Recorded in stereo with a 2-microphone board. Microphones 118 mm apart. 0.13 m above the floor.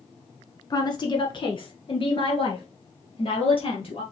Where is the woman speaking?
35° left (ahead or behind), 1.2 m; by 4.0 s 50° left (ahead or behind), 2.5 m.